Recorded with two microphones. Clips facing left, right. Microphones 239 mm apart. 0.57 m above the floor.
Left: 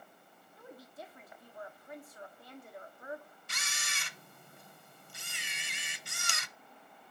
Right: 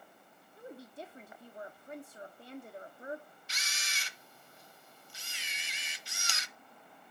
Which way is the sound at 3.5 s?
55° left (ahead or behind).